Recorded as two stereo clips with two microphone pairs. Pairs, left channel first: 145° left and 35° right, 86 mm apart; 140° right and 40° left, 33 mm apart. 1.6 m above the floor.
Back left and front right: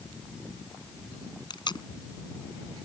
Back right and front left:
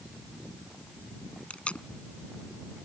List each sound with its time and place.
1.5 s tape being pulled: 175° left